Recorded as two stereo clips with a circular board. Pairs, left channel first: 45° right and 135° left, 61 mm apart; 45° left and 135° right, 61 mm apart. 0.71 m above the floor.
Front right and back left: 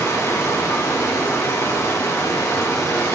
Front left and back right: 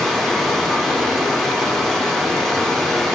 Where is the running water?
40° right, 2.0 m.